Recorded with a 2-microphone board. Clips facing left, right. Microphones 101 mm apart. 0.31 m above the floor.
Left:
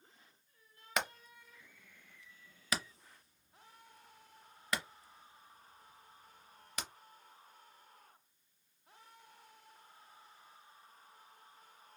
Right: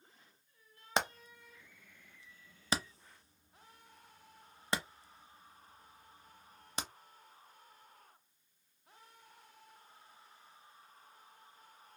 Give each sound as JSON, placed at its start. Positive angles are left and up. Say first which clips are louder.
{"t": 1.0, "sound": "hammering", "louder": "right 3 dB", "side_deg": -30, "distance_m": 0.5}